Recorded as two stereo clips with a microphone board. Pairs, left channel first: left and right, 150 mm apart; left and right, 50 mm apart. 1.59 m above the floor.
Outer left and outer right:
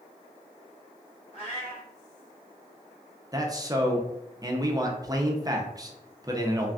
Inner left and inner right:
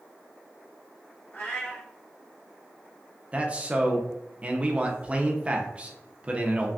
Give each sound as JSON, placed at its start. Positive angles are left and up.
{"t": 1.3, "sound": "a cat meowing", "side_deg": 45, "distance_m": 1.4}
{"t": 3.3, "sound": "a man speaking", "side_deg": -25, "distance_m": 0.7}